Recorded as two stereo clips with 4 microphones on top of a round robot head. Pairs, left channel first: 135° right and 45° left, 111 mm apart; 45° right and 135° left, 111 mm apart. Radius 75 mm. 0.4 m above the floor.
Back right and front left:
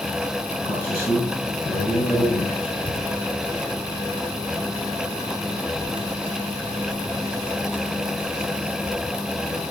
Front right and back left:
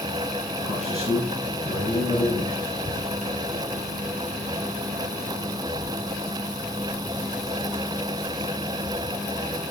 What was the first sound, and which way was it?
A man speaking, 150° left.